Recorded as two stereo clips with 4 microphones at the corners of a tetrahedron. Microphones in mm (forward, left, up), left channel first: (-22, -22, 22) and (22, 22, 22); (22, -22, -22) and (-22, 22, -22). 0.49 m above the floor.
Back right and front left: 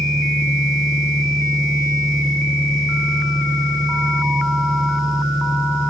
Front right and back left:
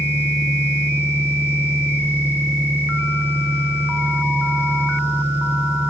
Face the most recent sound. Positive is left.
turn(degrees=165)